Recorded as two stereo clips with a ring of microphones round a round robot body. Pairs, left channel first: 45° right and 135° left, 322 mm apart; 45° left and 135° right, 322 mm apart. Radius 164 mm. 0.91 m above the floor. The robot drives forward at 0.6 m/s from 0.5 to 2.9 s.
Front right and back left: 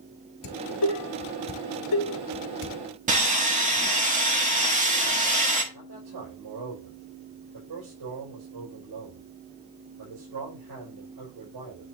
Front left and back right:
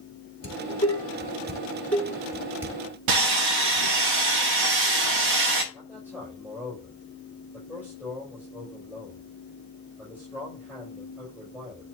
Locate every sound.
0.4 s dishes clattering: 25° right, 2.5 m; by 2.8 s 55° right, 1.3 m
3.1 s sawing: 160° right, 1.3 m
5.7 s a man speaking: 140° left, 5 m